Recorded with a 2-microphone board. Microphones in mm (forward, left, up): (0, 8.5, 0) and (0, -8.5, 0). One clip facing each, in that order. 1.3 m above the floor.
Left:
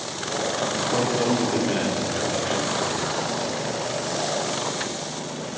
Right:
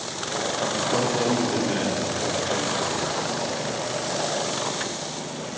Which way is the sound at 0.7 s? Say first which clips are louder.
Even; 10° right (ahead or behind).